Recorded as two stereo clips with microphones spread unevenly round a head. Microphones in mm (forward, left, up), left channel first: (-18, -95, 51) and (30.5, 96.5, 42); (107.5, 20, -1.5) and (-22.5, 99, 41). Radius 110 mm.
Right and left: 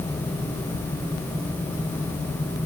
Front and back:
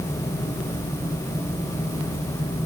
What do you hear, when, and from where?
Only background noise.